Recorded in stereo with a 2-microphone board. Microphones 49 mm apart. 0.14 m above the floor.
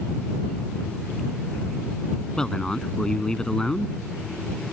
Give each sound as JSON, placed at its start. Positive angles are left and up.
{"t": 2.4, "sound": "a man speaking", "side_deg": 15}